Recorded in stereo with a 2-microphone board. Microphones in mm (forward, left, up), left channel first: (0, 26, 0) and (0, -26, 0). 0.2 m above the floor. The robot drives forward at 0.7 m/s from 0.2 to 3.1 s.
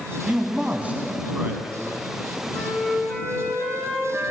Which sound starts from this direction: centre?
A flute, at 2.5 s.